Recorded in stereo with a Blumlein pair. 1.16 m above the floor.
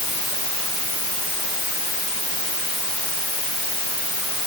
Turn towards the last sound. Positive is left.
No sound to turn to.